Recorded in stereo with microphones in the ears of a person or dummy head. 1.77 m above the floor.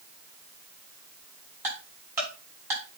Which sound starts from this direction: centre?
Ticking, at 1.6 s.